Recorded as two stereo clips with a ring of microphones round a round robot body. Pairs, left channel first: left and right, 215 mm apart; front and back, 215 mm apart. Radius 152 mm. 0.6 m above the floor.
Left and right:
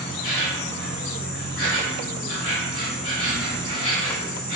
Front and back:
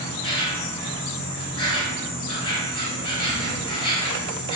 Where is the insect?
60° left, 1.3 m.